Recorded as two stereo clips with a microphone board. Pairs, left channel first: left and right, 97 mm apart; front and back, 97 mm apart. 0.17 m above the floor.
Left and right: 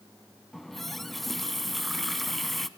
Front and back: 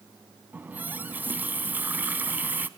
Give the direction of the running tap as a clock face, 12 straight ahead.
6 o'clock.